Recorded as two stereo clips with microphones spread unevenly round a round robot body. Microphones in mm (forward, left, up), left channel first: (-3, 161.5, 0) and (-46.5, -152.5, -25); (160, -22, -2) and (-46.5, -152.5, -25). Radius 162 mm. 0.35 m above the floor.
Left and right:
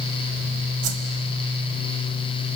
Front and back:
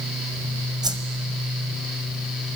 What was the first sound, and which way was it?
A whoosh, 75° right.